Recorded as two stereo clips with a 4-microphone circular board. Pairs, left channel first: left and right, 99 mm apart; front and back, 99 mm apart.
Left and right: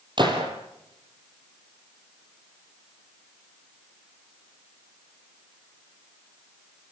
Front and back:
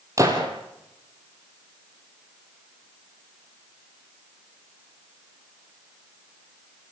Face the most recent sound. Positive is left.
turn(degrees=-125)